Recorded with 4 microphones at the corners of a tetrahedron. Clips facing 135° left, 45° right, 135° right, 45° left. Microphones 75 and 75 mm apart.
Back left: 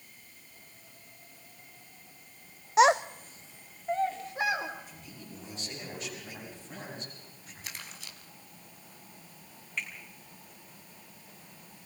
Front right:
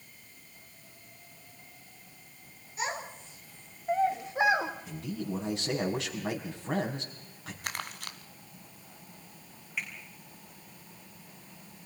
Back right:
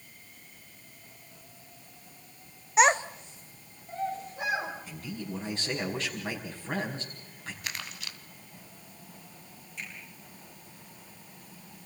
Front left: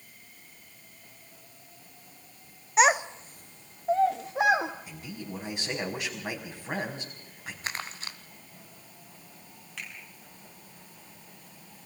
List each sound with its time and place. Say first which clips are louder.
2.8 s a child speaking: back left 14 dB, even; 135° left, 0.9 m; by 4.7 s 20° left, 1.8 m
4.9 s a man speaking: front right 12 dB, back right 2 dB; 35° right, 5.5 m
7.6 s crumpling: front right 8 dB, front left 5 dB; 15° right, 1.3 m
9.8 s a finger snap: even, even; 40° left, 7 m